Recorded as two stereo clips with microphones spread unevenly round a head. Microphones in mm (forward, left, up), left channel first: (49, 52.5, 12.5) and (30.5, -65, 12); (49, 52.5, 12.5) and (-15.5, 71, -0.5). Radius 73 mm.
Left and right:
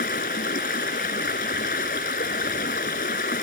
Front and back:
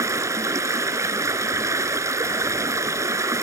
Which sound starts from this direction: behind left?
Running water, at 0.0 s.